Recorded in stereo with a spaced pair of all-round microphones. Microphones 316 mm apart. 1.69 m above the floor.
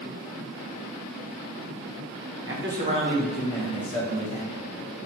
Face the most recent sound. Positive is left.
turn(degrees=25)  # may be behind; listen again after turning